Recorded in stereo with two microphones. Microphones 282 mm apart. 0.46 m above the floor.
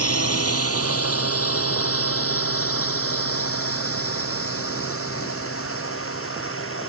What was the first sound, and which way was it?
A drone, 55° left (ahead or behind).